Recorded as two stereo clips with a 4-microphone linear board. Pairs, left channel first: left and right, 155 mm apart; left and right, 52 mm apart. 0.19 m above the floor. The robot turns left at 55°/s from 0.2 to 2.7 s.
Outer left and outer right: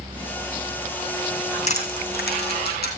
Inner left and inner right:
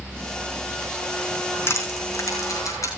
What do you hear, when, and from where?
1.7 s crushing: 45° left (ahead or behind), 4 m; by 2.9 s 75° left (ahead or behind), 4 m